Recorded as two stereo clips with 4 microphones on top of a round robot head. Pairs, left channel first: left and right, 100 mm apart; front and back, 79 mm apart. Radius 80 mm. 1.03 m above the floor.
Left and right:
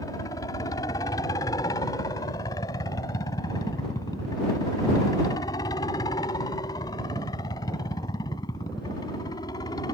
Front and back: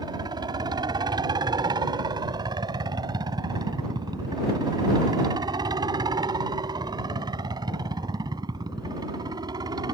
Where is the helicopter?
150° left.